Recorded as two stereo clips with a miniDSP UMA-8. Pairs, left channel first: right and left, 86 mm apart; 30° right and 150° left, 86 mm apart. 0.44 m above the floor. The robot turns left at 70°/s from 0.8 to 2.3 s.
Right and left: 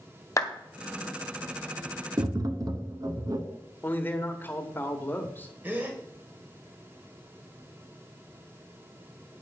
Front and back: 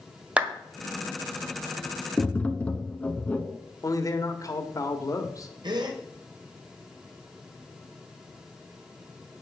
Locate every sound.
0.4 s a clap: 135° right, 1.5 m
2.2 s tapping: 55° left, 1.0 m; by 3.4 s 45° left, 1.0 m
3.8 s a man speaking: 35° right, 1.6 m
5.6 s a gasp: 155° left, 1.8 m